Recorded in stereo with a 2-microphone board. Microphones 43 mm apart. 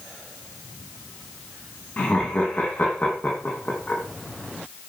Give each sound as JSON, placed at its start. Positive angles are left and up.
{"t": 2.0, "sound": "laughter", "side_deg": 45, "distance_m": 3.0}